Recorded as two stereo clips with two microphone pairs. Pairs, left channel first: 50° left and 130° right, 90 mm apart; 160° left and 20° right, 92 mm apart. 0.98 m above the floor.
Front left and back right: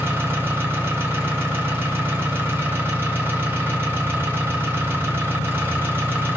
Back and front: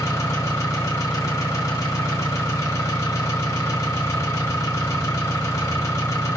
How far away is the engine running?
About 0.7 m.